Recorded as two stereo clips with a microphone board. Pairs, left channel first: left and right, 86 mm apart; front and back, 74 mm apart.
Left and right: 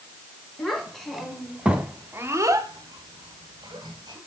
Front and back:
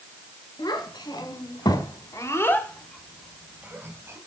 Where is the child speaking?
5° left, 1.9 m; by 4.2 s 125° right, 1.6 m.